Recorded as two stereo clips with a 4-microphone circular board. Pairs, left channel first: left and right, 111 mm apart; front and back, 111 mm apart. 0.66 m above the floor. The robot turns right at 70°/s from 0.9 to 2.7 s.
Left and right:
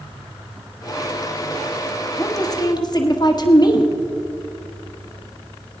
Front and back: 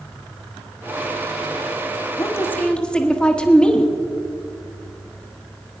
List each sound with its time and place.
2.2 s a woman speaking: 40° left, 1.4 m; by 3.9 s 75° left, 1.4 m